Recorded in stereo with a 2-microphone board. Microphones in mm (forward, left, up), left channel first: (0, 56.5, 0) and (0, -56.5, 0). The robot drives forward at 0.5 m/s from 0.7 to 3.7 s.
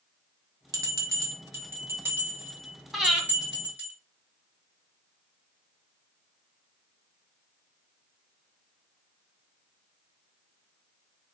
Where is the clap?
No clap in this recording.